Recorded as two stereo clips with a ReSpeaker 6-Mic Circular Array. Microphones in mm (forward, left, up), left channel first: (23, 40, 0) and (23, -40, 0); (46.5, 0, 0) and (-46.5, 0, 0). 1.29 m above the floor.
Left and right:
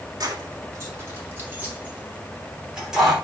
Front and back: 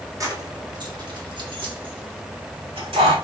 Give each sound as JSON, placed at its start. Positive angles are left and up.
{"t": 0.2, "sound": "keys jangling", "azimuth_deg": -130, "distance_m": 1.7}